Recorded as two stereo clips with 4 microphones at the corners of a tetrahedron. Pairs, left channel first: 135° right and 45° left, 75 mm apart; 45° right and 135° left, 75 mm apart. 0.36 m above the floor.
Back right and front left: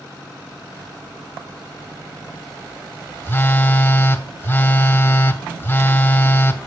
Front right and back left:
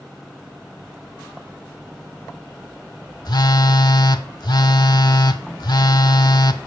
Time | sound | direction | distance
3.2 | a phone buzzing | 70° right | 0.5 m